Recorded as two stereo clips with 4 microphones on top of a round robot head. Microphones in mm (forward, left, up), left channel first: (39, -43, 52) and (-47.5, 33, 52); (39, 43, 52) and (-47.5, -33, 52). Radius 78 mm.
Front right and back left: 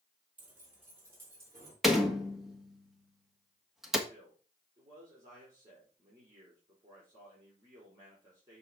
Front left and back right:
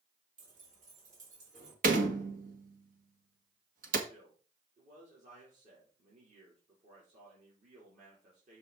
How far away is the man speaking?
About 3.5 m.